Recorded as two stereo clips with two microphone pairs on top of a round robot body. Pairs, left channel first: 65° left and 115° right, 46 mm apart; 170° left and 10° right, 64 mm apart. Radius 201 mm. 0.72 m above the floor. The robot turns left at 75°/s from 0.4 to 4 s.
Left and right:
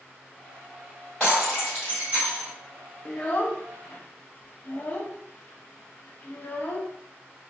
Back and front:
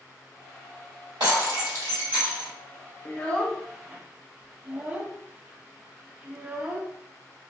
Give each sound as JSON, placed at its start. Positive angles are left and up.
{"t": 1.2, "sound": "breaking glass", "azimuth_deg": -10, "distance_m": 1.4}
{"t": 3.0, "sound": "a child speaking", "azimuth_deg": 120, "distance_m": 0.6}